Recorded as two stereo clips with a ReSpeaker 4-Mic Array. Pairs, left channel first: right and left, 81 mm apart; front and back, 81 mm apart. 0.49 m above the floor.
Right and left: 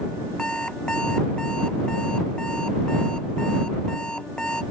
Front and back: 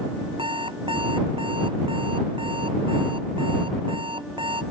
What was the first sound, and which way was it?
An alarm clock, 170° right.